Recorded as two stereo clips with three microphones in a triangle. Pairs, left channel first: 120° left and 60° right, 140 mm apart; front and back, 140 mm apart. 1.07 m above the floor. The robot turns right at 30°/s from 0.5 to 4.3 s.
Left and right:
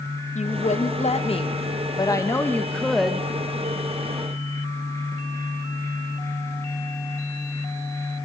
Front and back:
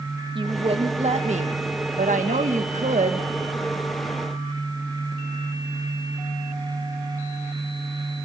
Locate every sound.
0.3 s a woman speaking: 135° left, 1.3 m; by 3.3 s 145° right, 1.3 m